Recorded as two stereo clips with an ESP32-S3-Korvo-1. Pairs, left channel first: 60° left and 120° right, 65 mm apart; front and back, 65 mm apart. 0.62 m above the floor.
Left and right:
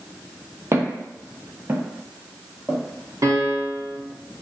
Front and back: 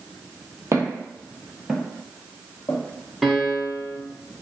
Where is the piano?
95° right, 0.7 m.